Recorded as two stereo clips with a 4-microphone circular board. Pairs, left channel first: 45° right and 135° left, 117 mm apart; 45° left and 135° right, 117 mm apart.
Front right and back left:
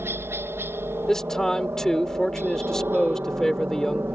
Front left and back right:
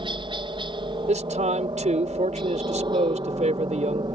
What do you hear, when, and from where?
0.0 s a helicopter: 160° right
1.1 s a man speaking: 130° right